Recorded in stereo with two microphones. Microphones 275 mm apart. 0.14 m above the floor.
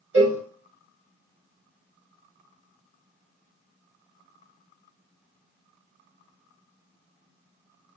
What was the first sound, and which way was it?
A cowbell, 55° right (ahead or behind).